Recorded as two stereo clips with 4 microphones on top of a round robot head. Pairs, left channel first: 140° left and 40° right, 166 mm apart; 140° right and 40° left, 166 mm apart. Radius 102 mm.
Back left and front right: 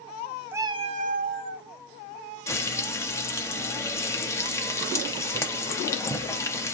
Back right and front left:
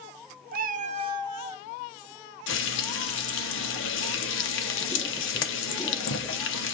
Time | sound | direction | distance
0.5 | a cat meowing | 35° left | 0.5 m
2.5 | frying | 145° right | 0.6 m